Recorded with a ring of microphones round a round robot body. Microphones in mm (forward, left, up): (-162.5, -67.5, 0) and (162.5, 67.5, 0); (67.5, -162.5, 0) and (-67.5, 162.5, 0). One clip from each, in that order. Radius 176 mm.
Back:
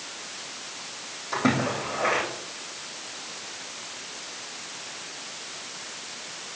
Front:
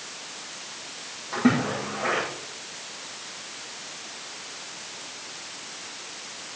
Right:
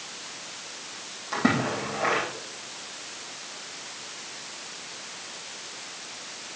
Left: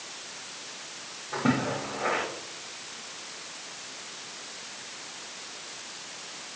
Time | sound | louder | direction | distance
1.3 | a splash | front 1 dB, right 3 dB | 80° right | 9 m